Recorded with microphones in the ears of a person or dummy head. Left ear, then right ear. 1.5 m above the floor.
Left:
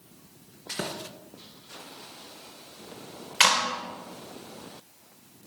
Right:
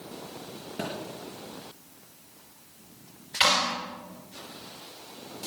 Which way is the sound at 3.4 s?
40° left (ahead or behind).